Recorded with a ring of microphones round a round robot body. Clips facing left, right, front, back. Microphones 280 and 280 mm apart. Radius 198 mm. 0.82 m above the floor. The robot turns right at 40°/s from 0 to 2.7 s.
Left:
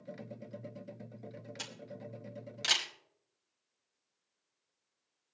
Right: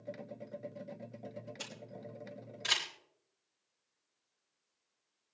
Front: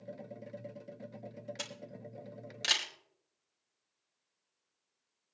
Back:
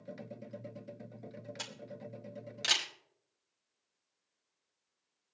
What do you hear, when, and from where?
1.6 s a camera shutter: 50° left, 3 m; by 2.9 s 90° left, 3 m